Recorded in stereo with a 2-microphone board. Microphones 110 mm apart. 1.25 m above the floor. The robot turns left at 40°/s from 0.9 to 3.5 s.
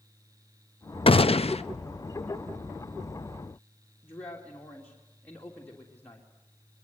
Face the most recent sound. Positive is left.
turn(degrees=15)  # may be behind; listen again after turning